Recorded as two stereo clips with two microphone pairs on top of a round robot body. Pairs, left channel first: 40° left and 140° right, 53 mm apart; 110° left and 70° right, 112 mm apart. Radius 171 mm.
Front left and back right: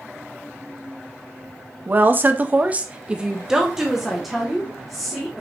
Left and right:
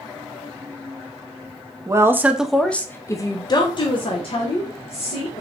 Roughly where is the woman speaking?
Behind right.